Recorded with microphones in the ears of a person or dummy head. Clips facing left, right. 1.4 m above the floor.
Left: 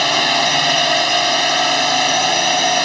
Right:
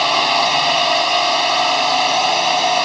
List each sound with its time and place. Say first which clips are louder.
0.0 s a drone: right 1 dB; 15° left (ahead or behind)